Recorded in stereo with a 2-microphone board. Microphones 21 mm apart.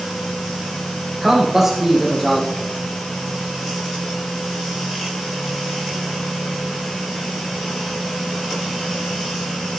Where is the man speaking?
20° right (ahead or behind), 6.5 m.